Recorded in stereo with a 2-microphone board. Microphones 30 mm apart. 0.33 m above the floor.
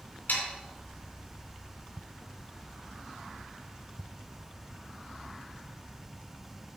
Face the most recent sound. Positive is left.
turn(degrees=70)  # may be behind; listen again after turning